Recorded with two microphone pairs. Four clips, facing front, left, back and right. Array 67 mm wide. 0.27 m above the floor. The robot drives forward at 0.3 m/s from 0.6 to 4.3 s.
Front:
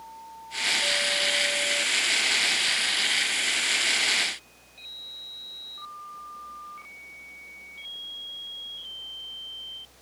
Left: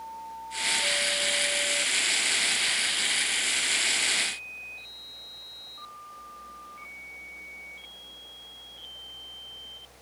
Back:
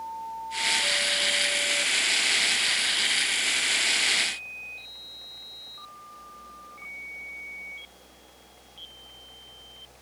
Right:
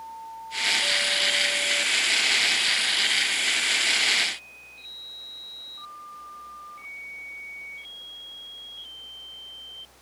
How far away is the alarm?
No alarm in this recording.